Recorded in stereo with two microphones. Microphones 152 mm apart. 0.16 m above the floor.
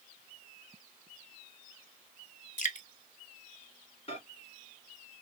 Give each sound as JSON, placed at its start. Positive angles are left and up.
{"t": 2.6, "sound": "dripping", "side_deg": 55, "distance_m": 0.5}
{"t": 4.1, "sound": "a microwave", "side_deg": 40, "distance_m": 1.4}